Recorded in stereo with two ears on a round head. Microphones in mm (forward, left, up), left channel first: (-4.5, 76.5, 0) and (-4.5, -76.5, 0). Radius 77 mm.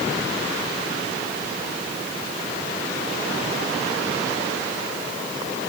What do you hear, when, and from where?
Only background noise.